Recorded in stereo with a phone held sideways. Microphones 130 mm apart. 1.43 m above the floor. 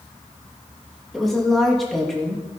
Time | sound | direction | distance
1.1 | a woman speaking | centre (ahead or behind) | 2.5 m